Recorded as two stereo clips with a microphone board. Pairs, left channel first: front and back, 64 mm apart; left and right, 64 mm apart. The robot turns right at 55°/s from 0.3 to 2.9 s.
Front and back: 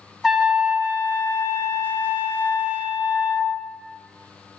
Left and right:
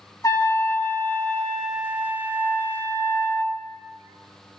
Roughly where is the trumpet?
Left.